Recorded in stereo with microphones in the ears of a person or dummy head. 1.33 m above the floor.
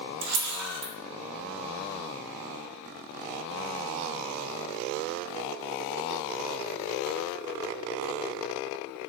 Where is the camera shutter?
65° right (ahead or behind), 0.9 m.